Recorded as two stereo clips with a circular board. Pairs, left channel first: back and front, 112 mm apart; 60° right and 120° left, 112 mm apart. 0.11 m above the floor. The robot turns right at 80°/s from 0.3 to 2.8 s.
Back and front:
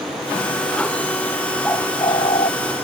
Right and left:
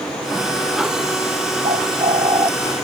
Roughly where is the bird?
Left.